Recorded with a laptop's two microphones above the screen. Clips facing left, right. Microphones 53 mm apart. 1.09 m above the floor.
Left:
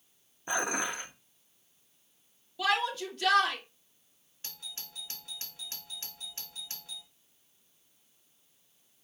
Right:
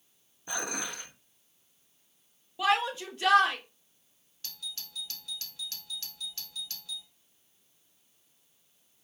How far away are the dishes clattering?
About 0.5 m.